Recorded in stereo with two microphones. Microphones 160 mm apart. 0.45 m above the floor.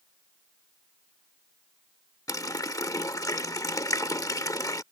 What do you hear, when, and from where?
2.3 s a running tap: 25° left (ahead or behind)